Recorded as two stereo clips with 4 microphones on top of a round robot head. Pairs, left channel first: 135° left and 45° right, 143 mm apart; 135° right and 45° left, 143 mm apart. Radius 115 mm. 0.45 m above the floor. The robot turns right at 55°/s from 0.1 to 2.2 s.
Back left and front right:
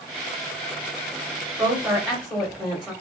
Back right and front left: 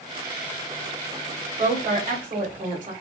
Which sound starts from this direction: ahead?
A woman speaking, at 1.6 s.